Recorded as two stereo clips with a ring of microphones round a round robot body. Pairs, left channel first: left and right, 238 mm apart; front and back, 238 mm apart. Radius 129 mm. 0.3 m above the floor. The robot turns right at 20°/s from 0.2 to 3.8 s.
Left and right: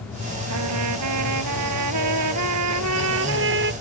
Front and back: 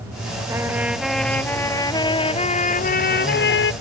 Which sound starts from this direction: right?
A trumpet, at 0.5 s.